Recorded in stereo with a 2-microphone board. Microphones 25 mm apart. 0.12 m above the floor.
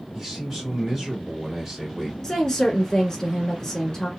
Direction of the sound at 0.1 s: 20° right (ahead or behind).